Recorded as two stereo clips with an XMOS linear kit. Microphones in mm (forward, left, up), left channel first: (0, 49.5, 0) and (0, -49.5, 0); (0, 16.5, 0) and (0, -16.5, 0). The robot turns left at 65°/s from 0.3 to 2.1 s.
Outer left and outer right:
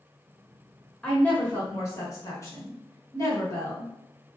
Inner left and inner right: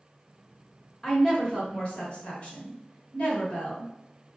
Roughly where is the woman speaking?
Behind.